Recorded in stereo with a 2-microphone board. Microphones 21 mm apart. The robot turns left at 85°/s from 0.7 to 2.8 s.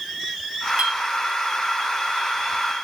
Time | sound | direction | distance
0.8 | a clink | 75° right (ahead or behind) | 2.5 m